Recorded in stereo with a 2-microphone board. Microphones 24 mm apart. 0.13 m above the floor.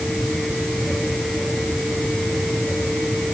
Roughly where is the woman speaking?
No woman speaking in this recording.